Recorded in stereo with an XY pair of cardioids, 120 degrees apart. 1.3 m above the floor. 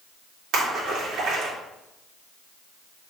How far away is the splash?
About 3.5 m.